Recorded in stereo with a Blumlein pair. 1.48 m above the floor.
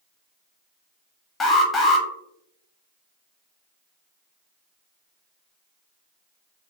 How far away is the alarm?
About 0.6 m.